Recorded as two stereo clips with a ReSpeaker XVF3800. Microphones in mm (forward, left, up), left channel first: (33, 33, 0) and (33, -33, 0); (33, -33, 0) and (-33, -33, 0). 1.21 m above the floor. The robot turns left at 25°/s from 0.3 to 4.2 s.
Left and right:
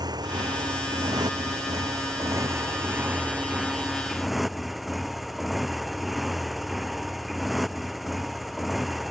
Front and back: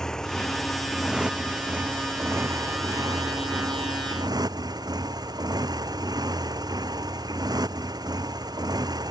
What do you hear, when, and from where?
0.0 s a motorcycle: 80° right; by 9.1 s straight behind